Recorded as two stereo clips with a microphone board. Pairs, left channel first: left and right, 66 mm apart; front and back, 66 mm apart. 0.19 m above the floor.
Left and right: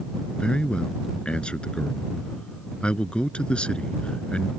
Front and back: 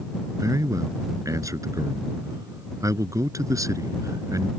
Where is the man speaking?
160° left.